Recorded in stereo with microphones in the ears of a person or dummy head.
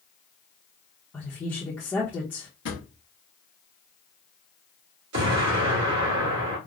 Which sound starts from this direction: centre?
A woman speaking, at 1.1 s.